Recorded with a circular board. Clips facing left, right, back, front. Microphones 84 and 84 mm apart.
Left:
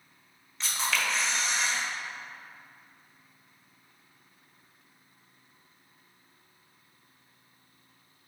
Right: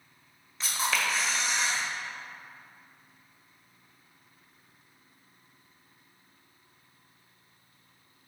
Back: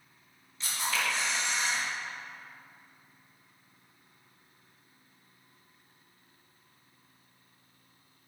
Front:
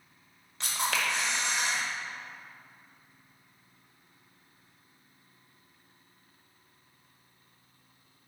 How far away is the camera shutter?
About 1.2 m.